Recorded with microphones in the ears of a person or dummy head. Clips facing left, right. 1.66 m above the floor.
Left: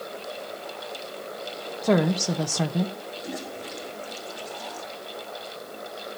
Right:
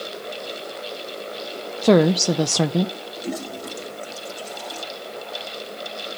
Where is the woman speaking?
55° right (ahead or behind), 0.5 m.